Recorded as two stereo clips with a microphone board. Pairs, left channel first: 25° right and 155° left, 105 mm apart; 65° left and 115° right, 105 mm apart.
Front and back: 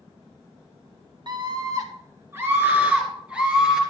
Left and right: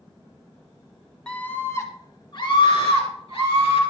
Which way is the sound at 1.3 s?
145° left.